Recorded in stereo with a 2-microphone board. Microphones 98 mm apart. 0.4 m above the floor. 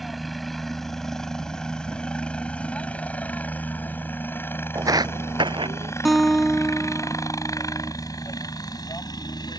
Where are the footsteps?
35° right (ahead or behind); by 5.9 s 65° right (ahead or behind).